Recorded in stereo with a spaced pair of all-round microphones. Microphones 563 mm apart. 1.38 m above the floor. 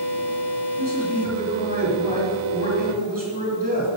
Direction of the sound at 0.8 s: 35° right (ahead or behind).